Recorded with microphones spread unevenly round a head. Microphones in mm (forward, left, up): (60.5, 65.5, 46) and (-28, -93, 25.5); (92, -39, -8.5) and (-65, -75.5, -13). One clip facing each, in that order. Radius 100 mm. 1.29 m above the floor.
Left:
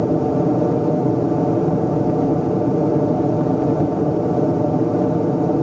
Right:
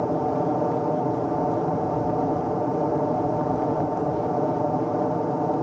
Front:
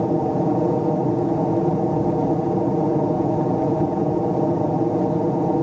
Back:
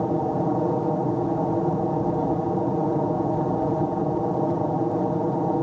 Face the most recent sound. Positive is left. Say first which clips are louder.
# left 6 dB, front 4 dB
turn(degrees=75)